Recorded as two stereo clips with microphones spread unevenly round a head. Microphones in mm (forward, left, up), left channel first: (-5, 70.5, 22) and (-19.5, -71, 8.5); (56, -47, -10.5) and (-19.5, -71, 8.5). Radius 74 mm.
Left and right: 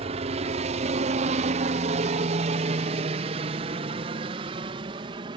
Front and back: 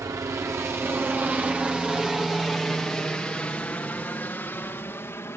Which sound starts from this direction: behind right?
A helicopter, at 0.0 s.